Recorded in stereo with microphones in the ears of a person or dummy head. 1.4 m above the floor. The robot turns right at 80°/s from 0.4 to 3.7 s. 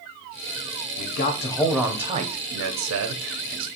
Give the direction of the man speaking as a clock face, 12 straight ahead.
8 o'clock.